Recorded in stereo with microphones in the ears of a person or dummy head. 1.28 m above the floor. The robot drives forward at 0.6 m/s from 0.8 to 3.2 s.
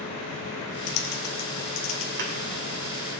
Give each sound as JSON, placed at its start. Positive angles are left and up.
{"t": 0.9, "sound": "typing on a keyboard", "side_deg": 50, "distance_m": 0.8}
{"t": 2.2, "sound": "a thud", "side_deg": -60, "distance_m": 2.5}